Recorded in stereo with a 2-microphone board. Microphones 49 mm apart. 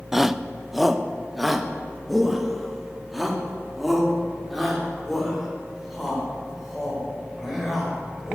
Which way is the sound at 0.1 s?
10° right (ahead or behind).